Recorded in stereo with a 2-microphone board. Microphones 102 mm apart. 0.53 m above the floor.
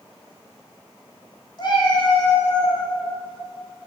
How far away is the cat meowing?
About 1.9 m.